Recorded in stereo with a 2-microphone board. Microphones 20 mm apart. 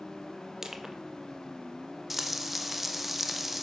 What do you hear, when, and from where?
0.6 s crushing: 20° right (ahead or behind), 1.2 m
2.1 s frying: 5° right (ahead or behind), 1.2 m